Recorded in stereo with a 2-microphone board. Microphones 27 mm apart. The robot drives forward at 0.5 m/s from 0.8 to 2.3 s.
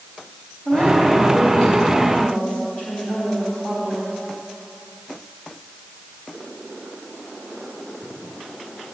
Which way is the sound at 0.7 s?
40° left (ahead or behind).